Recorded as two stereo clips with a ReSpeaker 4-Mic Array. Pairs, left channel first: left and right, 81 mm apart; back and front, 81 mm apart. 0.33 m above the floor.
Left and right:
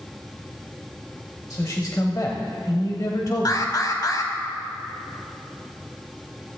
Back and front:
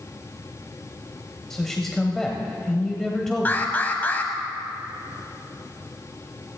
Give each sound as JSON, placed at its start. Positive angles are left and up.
{"t": 1.5, "sound": "a man speaking", "azimuth_deg": 95, "distance_m": 1.3}
{"t": 3.5, "sound": "an alarm", "azimuth_deg": 115, "distance_m": 1.4}